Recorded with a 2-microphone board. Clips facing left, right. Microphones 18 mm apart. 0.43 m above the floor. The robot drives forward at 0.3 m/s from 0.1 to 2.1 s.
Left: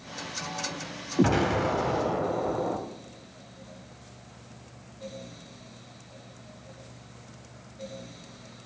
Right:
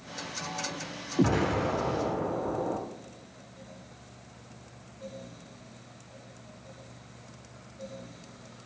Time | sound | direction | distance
1.2 | an explosion | 30° left (ahead or behind) | 0.7 m